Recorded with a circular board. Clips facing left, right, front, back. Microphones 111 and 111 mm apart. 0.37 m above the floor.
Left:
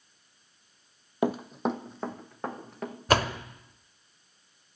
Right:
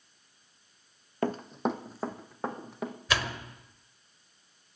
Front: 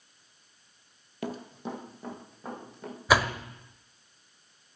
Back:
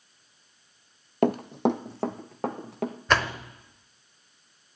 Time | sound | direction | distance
1.2 | running footsteps | 165° left | 0.6 m
3.1 | a door slam | 80° left | 1.1 m